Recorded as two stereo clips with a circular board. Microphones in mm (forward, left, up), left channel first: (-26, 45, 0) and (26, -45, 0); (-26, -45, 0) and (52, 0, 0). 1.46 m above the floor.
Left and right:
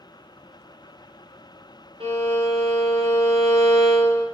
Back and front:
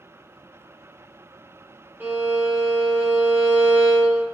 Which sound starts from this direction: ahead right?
A violin, at 2.0 s.